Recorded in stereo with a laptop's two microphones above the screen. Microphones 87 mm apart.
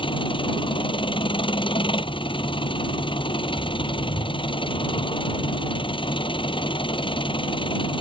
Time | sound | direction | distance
0.0 | an engine running | 75° left (ahead or behind) | ?